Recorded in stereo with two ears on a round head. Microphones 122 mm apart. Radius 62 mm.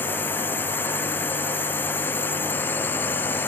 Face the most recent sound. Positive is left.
turn(degrees=15)  # may be behind; listen again after turning